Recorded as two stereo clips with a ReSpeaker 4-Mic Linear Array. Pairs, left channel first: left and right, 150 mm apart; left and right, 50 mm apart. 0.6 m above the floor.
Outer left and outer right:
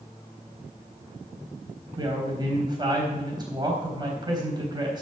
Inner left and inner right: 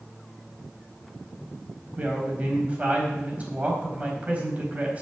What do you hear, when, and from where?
2.0 s a woman speaking: 30° right (ahead or behind), 4 m